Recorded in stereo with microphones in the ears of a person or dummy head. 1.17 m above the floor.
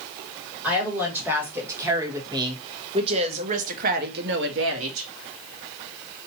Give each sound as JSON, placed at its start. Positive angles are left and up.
{"t": 0.6, "sound": "a woman speaking", "side_deg": -5, "distance_m": 2.0}